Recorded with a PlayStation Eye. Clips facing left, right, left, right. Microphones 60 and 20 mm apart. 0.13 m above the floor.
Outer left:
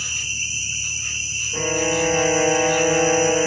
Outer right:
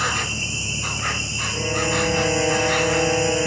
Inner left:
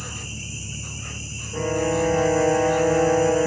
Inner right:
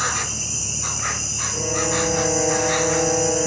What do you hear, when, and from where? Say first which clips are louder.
0.0 s an insect: outer right 6 dB, inner right 10 dB; 70° right (ahead or behind)
1.5 s a violin: outer left 2 dB, inner left 2 dB; 10° left (ahead or behind)